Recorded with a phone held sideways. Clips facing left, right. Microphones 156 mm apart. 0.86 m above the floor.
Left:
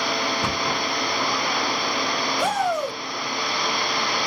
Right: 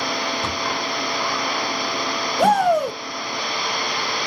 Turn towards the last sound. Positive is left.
turn(degrees=-60)  # may be behind; listen again after turning